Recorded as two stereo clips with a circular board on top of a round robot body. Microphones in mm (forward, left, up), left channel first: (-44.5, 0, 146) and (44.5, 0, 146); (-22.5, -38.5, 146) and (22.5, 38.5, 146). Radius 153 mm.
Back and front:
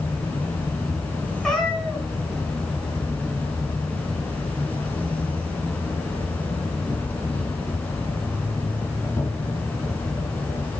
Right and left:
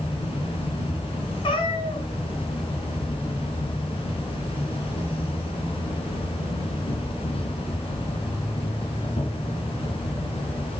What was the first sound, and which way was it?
An insect, 105° right.